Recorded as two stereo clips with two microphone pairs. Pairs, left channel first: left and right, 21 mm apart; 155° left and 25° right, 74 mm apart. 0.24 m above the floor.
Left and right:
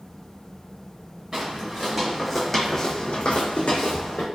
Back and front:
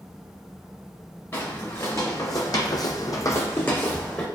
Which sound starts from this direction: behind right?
Footsteps, at 1.3 s.